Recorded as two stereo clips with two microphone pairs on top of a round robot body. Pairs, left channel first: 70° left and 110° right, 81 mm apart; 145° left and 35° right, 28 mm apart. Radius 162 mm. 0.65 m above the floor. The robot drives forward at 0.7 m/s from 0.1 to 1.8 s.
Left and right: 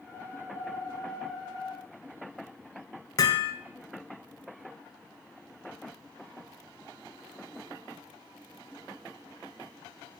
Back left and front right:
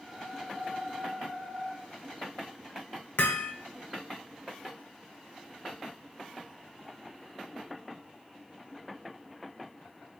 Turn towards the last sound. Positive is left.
turn(degrees=115)